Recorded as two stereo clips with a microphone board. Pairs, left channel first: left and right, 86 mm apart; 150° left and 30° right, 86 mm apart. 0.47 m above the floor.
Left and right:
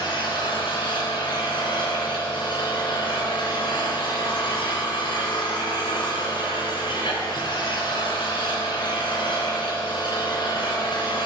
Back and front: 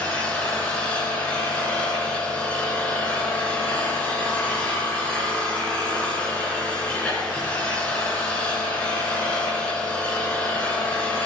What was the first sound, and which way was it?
An engine running, 75° left.